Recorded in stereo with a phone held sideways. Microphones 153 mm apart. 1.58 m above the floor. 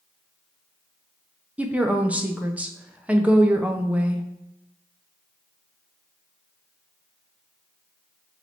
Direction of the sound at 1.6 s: 10° right (ahead or behind).